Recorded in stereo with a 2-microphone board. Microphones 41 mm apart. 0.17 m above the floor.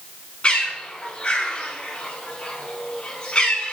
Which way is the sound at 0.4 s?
35° left (ahead or behind).